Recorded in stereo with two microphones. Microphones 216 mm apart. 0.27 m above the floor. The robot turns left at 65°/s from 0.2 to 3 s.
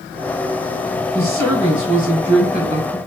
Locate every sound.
1.1 s a woman speaking: 85° left, 2.5 m; by 3.0 s 35° right, 2.5 m